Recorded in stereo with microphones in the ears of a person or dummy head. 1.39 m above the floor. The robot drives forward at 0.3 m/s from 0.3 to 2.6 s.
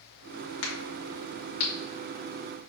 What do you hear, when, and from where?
0.6 s a crack: 75° left (ahead or behind), 1.4 m; by 1.7 s 65° left (ahead or behind), 1.5 m